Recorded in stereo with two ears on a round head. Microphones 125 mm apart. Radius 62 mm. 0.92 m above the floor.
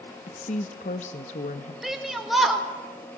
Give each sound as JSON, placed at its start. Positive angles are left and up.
{"t": 0.3, "sound": "a woman speaking", "side_deg": 55, "distance_m": 1.0}
{"t": 1.8, "sound": "a shout", "side_deg": 0, "distance_m": 3.0}